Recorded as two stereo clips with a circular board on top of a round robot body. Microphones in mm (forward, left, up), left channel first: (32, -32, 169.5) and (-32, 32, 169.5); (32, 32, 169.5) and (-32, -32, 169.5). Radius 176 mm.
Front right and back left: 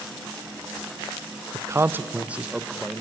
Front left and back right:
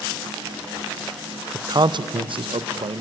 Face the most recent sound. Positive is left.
turn(degrees=-140)